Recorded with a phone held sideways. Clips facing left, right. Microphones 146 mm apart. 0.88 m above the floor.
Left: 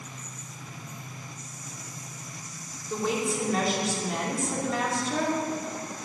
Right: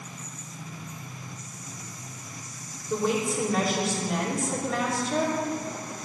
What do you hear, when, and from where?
2.9 s a woman speaking: centre (ahead or behind), 2.5 m